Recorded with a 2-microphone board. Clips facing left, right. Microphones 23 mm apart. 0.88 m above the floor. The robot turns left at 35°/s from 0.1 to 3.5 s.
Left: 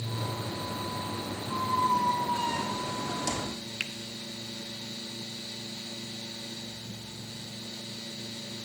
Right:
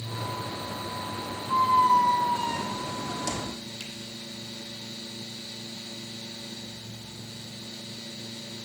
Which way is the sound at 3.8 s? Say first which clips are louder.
Left 5 dB; 55° left (ahead or behind).